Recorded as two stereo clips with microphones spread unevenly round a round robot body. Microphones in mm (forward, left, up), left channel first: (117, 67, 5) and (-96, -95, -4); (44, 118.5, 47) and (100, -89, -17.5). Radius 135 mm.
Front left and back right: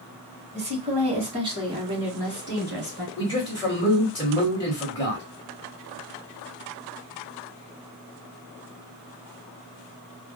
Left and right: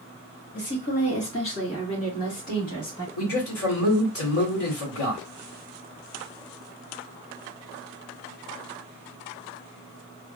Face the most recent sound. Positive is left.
turn(degrees=110)